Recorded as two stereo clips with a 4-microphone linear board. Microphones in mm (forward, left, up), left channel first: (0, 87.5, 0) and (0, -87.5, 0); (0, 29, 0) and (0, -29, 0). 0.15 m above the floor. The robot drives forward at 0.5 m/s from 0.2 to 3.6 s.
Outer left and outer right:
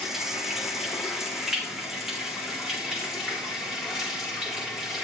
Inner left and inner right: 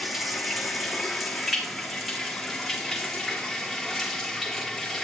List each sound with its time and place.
0.0 s running water: centre (ahead or behind), 2.5 m